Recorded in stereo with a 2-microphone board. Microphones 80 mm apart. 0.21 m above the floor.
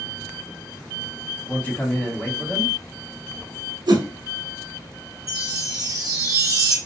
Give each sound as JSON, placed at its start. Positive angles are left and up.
{"t": 1.5, "sound": "a man speaking", "side_deg": 25, "distance_m": 1.1}
{"t": 3.9, "sound": "a whoosh", "side_deg": -65, "distance_m": 0.7}
{"t": 5.3, "sound": "a chime", "side_deg": -45, "distance_m": 0.8}